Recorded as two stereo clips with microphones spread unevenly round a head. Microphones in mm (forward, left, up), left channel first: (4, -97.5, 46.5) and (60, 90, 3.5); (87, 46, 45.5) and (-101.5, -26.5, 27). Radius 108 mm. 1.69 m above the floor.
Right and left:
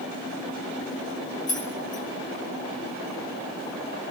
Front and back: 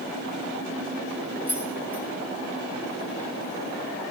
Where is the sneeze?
I don't hear a sneeze.